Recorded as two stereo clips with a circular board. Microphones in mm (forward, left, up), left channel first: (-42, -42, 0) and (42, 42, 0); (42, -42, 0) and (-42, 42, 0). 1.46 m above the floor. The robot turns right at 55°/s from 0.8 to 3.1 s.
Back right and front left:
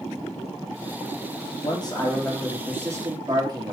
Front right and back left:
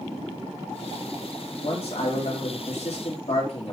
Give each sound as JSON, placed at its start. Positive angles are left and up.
{"t": 1.6, "sound": "a man speaking", "azimuth_deg": -95, "distance_m": 2.5}